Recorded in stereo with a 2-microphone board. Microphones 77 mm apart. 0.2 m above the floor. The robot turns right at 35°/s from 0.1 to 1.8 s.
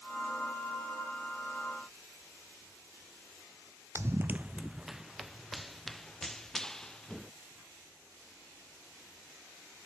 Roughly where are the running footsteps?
Right.